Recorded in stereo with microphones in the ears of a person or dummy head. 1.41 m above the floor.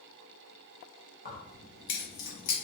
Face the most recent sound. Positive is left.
turn(degrees=70)  # may be behind; listen again after turning